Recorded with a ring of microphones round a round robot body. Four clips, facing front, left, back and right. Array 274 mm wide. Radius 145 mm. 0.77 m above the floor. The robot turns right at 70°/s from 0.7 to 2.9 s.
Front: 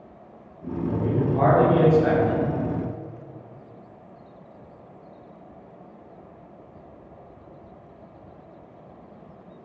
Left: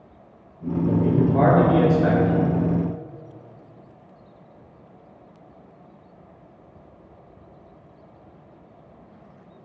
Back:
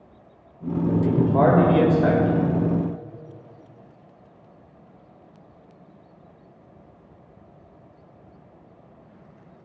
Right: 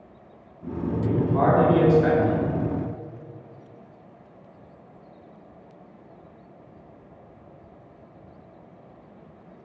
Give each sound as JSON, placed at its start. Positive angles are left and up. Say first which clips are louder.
{"t": 0.9, "sound": "a man speaking", "louder": "left 4 dB, back 3 dB", "azimuth_deg": 115, "distance_m": 3.0}